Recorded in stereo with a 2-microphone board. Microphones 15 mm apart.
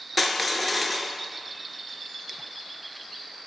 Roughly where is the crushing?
Centre.